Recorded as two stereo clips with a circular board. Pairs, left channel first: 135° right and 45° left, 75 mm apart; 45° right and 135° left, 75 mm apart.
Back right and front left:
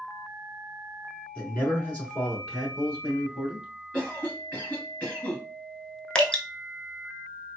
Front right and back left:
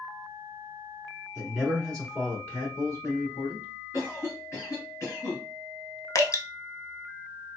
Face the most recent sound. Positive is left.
turn(degrees=-60)